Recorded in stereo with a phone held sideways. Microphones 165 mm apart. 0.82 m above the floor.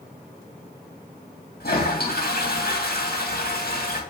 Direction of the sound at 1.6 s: 70° left (ahead or behind).